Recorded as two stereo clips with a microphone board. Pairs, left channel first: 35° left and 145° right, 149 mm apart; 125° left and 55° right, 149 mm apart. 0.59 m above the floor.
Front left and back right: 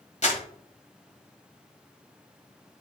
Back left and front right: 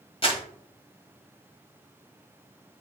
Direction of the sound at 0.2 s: 75° left.